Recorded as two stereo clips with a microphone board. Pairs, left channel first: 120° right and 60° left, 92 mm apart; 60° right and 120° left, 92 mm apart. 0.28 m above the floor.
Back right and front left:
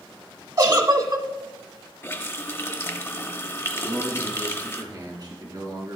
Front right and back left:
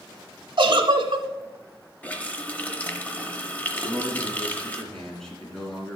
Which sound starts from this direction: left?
A giggle, at 0.6 s.